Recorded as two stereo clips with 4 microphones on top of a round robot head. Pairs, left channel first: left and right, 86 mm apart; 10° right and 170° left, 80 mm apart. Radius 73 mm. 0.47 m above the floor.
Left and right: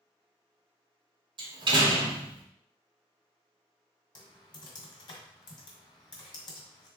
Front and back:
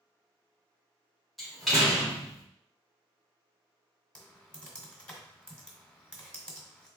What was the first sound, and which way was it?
A door slam, 100° right.